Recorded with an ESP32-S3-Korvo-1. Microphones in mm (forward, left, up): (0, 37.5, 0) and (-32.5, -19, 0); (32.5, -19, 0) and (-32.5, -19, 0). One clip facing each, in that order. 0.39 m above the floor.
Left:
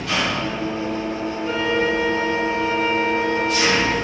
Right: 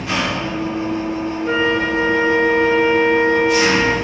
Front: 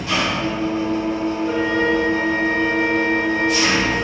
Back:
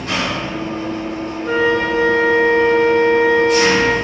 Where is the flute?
165° right, 0.9 m.